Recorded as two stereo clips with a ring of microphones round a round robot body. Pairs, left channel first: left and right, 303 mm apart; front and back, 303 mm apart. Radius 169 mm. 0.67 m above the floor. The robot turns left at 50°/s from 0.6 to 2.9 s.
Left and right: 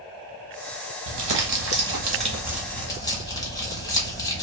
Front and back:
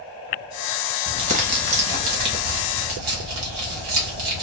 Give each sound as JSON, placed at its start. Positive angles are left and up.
{"t": 1.1, "sound": "crumpling", "azimuth_deg": -100, "distance_m": 1.1}